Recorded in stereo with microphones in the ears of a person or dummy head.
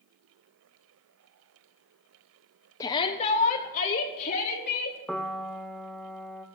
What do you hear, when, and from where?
2.8 s a shout: 20° left (ahead or behind), 0.5 m; by 5.0 s 55° left (ahead or behind), 1.6 m
5.1 s a piano: 5° left (ahead or behind), 0.6 m